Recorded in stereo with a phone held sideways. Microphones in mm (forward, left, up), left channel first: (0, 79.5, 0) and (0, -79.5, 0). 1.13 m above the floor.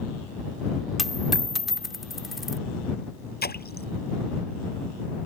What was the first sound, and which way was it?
A dropped coin, centre (ahead or behind).